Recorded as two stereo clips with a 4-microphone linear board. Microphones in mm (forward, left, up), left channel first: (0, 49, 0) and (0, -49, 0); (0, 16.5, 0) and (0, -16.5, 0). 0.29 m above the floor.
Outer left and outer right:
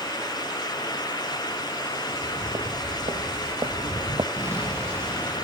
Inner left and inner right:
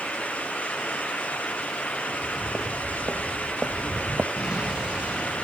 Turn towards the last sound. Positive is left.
turn(degrees=-25)  # may be behind; listen again after turning